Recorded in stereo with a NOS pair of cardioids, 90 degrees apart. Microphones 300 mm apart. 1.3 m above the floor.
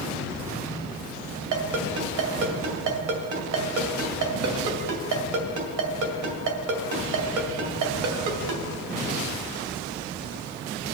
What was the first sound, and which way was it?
A ringtone, 70° right.